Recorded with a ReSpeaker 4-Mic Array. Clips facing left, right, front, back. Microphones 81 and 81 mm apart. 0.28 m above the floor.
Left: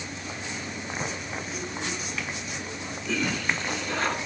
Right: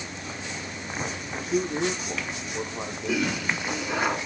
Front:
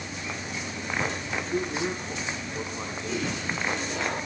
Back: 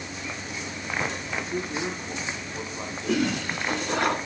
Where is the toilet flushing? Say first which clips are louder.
Right 1 dB, back 6 dB; 170° right, 2.5 m.